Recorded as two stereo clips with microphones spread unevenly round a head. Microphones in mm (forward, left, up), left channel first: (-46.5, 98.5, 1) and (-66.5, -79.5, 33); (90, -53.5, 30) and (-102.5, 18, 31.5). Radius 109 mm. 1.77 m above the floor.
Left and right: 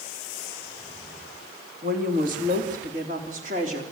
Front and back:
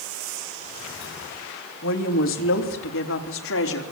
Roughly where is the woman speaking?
Ahead right.